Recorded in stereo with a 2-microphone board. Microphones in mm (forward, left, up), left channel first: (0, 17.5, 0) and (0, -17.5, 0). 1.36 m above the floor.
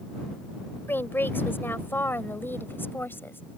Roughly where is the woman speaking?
Left.